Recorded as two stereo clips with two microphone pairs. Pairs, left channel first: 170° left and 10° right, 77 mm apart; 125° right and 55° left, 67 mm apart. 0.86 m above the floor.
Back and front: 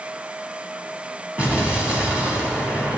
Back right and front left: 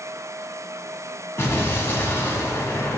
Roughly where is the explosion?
Right.